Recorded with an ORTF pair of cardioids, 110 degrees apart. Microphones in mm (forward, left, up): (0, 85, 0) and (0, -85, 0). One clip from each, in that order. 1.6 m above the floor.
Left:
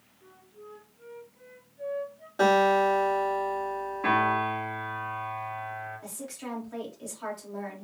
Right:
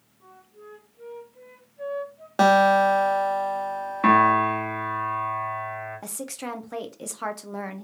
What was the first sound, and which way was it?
A flute, 45° right.